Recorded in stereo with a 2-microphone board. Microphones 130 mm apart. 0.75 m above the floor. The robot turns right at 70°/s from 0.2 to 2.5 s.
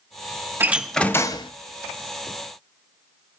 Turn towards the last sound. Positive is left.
turn(degrees=115)